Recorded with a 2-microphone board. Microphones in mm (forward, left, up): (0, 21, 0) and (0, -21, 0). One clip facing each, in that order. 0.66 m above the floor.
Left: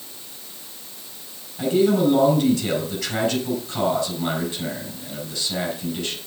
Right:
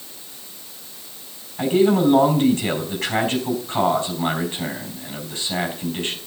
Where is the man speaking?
30° right (ahead or behind), 4.5 m.